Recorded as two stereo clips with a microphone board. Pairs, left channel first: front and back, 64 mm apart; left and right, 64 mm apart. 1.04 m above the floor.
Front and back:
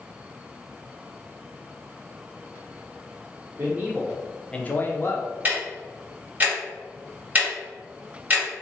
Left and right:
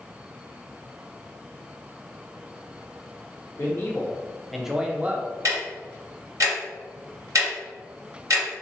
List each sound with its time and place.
3.6 s a man speaking: 135° left, 0.9 m; by 5.3 s 30° right, 1.0 m
5.5 s ticking: 120° right, 1.8 m